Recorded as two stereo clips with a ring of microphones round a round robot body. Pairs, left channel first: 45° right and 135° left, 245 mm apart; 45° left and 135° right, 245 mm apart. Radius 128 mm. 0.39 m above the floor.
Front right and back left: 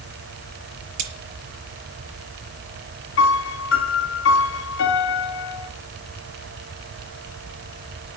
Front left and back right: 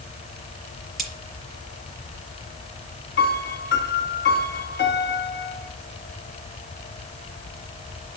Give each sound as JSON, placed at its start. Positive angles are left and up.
{"t": 1.0, "sound": "cutlery clinking", "azimuth_deg": 135, "distance_m": 5.0}
{"t": 3.2, "sound": "a piano", "azimuth_deg": -5, "distance_m": 2.5}